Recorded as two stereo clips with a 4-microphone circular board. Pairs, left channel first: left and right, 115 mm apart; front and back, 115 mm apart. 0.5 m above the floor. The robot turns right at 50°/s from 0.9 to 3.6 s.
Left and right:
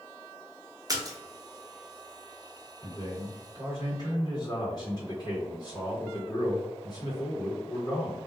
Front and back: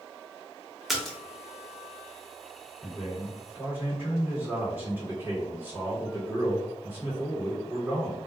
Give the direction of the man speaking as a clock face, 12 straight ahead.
9 o'clock.